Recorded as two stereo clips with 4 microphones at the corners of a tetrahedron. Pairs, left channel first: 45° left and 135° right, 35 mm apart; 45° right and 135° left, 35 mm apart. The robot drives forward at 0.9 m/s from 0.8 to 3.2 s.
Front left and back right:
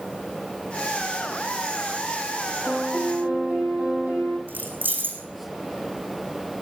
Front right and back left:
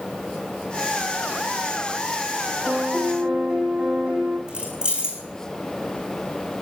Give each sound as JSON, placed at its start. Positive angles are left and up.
{"t": 2.6, "sound": "a piano", "azimuth_deg": -165, "distance_m": 4.5}
{"t": 4.5, "sound": "keys jangling", "azimuth_deg": -160, "distance_m": 4.0}